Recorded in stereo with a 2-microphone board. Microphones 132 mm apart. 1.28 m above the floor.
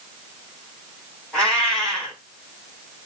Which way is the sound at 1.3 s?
5° left (ahead or behind).